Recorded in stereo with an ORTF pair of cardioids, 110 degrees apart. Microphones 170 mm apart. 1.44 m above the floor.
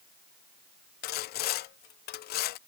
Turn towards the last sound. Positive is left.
turn(degrees=70)